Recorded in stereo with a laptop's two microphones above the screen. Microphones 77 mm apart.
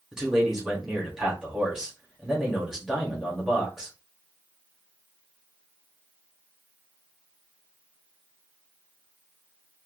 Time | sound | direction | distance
0.1 | a man speaking | 5° right (ahead or behind) | 1.6 m